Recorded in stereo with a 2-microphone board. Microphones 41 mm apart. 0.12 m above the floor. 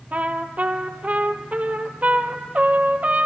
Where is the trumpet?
40° right (ahead or behind), 1.0 m.